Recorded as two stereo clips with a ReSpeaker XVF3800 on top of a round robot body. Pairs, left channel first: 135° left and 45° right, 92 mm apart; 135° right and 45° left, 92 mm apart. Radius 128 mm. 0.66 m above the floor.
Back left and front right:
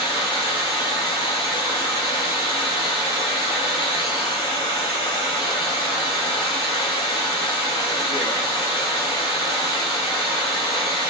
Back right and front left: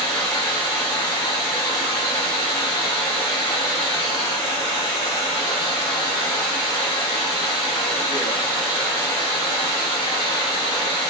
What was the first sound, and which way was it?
Running water, 175° left.